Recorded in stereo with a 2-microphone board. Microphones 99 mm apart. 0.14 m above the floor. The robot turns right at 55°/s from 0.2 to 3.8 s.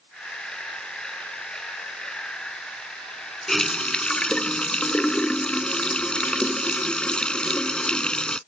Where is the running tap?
5° left (ahead or behind); by 8.4 s 10° left (ahead or behind).